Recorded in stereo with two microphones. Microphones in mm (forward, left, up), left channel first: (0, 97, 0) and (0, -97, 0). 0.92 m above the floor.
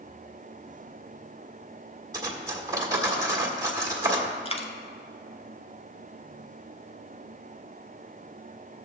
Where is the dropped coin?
35° left (ahead or behind), 1.1 m.